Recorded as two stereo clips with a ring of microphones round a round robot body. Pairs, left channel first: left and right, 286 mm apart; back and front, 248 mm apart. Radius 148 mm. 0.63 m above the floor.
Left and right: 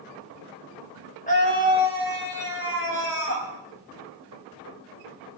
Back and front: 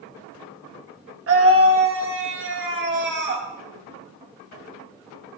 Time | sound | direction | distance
1.3 | a scream | 25° left | 3.5 m